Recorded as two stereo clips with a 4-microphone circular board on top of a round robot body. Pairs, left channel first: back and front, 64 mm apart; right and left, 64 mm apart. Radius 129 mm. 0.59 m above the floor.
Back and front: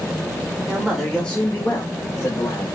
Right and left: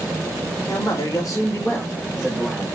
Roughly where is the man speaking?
Right.